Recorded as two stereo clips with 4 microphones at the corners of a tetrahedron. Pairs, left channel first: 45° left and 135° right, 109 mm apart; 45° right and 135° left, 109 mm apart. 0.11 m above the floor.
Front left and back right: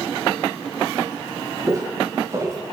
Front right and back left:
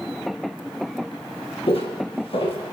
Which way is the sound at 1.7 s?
75° right.